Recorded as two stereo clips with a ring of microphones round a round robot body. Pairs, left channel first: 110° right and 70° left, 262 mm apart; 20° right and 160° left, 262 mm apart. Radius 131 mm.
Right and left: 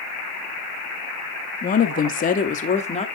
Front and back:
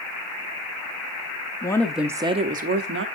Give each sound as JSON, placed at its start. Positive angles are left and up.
{"t": 1.6, "sound": "a woman speaking", "azimuth_deg": -85, "distance_m": 0.7}